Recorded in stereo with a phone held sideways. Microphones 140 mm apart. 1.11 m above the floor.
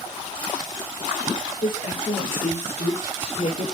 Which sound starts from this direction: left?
A woman speaking, at 1.6 s.